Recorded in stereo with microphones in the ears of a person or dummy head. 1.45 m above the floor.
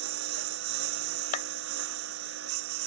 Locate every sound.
0.0 s a lawn mower: 70° right (ahead or behind)
1.3 s a clap: 45° left (ahead or behind)